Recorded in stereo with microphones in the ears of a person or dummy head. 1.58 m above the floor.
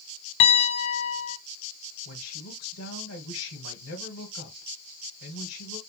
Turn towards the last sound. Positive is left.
turn(degrees=80)